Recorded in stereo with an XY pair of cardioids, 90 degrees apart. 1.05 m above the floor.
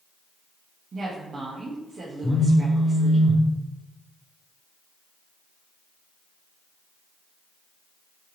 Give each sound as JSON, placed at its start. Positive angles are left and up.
{"t": 0.9, "sound": "a woman speaking", "azimuth_deg": -45, "distance_m": 1.1}
{"t": 2.2, "sound": "a phone buzzing", "azimuth_deg": 15, "distance_m": 0.8}